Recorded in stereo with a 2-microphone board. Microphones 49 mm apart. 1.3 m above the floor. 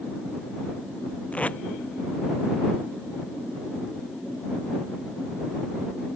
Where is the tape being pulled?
30° left (ahead or behind).